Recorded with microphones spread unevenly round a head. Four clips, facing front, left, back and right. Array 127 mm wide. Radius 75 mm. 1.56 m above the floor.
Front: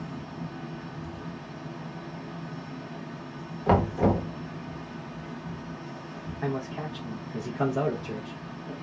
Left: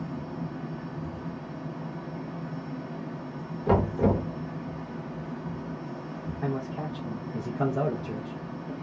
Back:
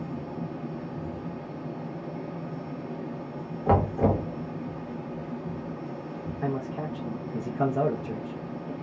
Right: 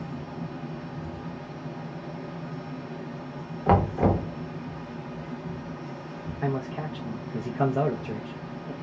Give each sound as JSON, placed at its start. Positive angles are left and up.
{"t": 0.0, "sound": "a fan", "azimuth_deg": -90, "distance_m": 1.1}
{"t": 3.7, "sound": "knocking", "azimuth_deg": -60, "distance_m": 1.1}
{"t": 6.4, "sound": "a man speaking", "azimuth_deg": -60, "distance_m": 0.7}